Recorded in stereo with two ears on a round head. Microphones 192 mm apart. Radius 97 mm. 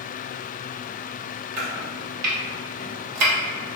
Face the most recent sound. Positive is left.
turn(degrees=-80)